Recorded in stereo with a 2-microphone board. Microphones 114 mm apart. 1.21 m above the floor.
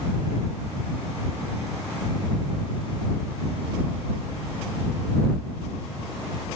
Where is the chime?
No chime in this recording.